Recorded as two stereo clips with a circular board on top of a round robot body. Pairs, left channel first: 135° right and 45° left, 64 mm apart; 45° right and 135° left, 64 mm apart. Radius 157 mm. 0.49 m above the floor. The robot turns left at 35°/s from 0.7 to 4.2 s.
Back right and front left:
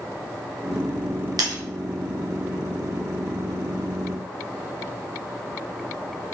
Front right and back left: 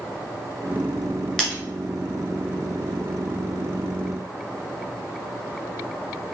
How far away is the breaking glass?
About 1.8 m.